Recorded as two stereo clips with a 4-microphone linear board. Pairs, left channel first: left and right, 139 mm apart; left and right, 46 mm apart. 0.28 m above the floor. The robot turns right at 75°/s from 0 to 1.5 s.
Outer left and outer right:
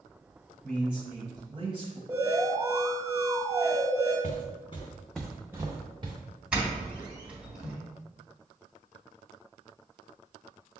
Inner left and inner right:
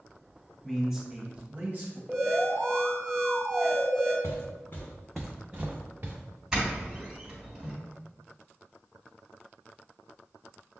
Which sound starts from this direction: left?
Footsteps, at 4.2 s.